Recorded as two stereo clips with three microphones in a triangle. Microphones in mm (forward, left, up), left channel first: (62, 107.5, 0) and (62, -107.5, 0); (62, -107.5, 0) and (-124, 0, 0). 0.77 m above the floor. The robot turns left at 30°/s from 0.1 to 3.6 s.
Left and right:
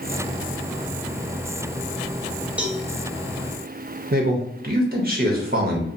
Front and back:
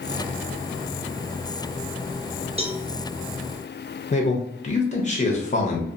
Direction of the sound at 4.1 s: 75° right.